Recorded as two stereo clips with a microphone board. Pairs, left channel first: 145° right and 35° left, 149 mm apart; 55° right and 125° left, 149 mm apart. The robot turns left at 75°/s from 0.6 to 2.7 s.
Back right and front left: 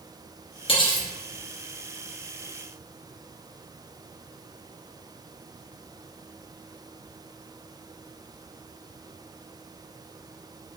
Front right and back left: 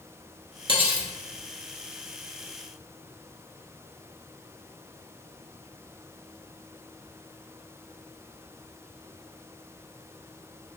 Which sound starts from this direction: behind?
Cutlery clinking, at 0.7 s.